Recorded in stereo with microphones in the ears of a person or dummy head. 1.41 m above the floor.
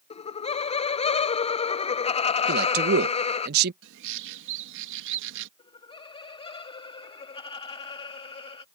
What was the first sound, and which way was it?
Laughter, 35° left (ahead or behind).